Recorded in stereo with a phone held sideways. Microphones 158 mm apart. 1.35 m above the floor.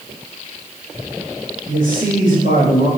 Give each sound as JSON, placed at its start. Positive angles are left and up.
{"t": 1.7, "sound": "a man speaking", "side_deg": -65, "distance_m": 8.0}